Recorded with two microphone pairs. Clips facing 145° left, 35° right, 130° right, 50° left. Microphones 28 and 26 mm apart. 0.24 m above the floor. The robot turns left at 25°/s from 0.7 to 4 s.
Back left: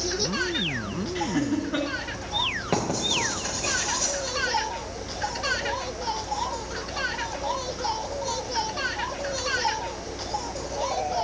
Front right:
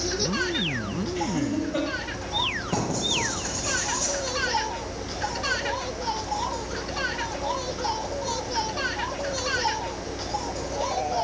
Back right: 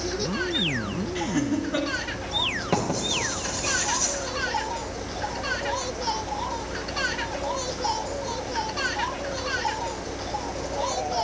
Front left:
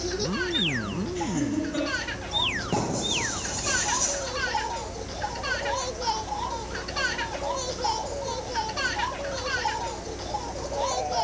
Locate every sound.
1.1 s laughter: 170° right, 3.5 m; by 1.9 s 170° left, 3.5 m
2.7 s writing: straight behind, 5 m; by 4.1 s 150° left, 5 m